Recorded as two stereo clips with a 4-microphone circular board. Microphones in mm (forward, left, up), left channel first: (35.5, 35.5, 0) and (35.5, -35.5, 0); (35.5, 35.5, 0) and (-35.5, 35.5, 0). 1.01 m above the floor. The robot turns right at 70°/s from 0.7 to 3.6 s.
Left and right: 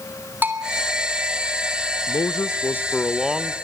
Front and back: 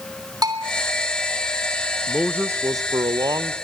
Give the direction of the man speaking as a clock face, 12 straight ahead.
9 o'clock.